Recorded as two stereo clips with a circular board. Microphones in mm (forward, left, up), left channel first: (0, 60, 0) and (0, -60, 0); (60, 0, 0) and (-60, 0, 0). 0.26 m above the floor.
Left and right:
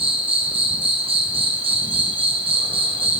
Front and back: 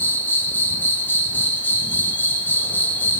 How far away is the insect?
About 2.5 m.